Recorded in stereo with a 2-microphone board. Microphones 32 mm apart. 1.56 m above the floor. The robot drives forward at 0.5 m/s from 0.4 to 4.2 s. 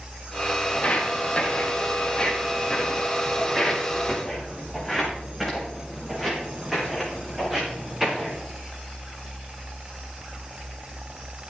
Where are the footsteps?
50° left (ahead or behind), 4 m; by 8.3 s 10° right (ahead or behind), 9.5 m.